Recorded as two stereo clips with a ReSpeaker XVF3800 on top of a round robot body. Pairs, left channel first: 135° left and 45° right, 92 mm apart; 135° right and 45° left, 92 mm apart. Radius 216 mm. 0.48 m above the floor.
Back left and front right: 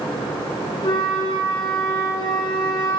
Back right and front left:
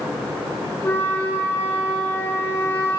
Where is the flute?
165° left, 2.5 m.